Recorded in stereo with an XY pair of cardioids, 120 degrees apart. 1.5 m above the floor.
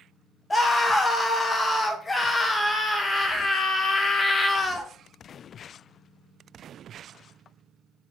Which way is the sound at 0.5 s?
20° left.